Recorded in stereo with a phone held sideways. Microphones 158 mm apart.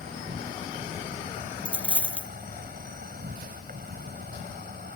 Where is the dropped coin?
5° right (ahead or behind).